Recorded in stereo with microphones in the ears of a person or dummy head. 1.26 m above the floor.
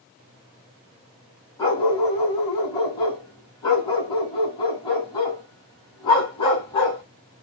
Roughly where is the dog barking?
Left.